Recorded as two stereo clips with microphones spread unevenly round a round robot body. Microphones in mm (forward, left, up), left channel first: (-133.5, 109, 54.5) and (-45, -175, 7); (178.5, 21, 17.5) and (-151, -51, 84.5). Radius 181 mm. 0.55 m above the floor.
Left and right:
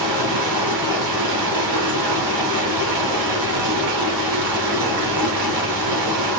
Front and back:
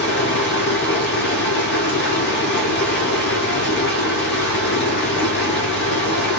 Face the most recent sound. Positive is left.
turn(degrees=-50)